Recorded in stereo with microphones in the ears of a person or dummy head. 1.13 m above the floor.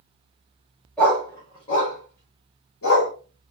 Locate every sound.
1.0 s a dog barking: 5° left (ahead or behind), 1.1 m; by 3.1 s 60° left (ahead or behind), 1.3 m